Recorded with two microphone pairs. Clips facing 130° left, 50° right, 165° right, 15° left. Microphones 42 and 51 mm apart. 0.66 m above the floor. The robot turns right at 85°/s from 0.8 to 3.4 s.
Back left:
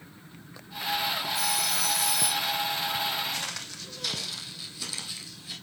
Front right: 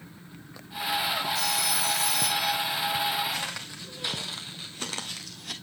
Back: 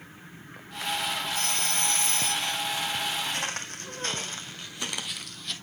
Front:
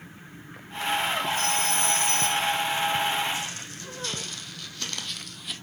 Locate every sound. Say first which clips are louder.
1.4 s a phone ringing: front right 1 dB, front 4 dB; 165° right, 2.5 m; by 2.5 s 60° right, 2.5 m
3.3 s footsteps: front right 2 dB, back 1 dB; 140° right, 2.0 m; by 5.5 s 65° right, 1.3 m